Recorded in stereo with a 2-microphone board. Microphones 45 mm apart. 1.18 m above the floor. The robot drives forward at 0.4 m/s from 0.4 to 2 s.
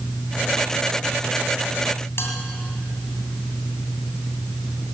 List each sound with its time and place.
2.2 s a bell: 70° left (ahead or behind), 2.5 m